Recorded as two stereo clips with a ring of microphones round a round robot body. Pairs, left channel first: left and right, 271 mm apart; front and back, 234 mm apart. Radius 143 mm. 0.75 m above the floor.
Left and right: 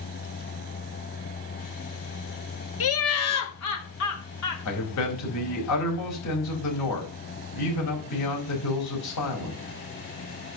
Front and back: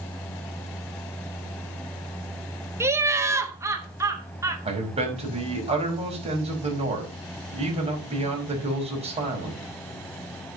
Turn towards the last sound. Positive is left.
turn(degrees=115)